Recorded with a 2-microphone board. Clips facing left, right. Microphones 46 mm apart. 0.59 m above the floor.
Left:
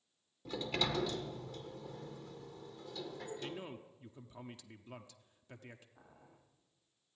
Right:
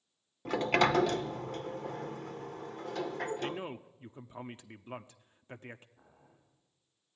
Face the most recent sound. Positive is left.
turn(degrees=75)  # may be behind; listen again after turning